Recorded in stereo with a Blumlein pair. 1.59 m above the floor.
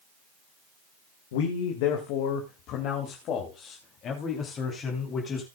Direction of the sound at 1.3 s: 55° left.